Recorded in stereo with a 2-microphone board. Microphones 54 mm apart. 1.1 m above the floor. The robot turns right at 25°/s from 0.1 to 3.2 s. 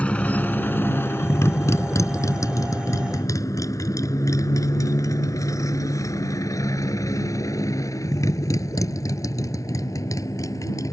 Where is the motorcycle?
20° left (ahead or behind); by 10.9 s 85° left.